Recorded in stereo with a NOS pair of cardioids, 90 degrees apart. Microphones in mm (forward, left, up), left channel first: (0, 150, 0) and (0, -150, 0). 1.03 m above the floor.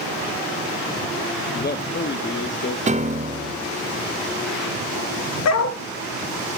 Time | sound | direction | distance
1.5 | a man speaking | 30° left | 1.3 m
2.9 | a piano | 25° right | 0.9 m
5.5 | a dog barking | 60° left | 1.7 m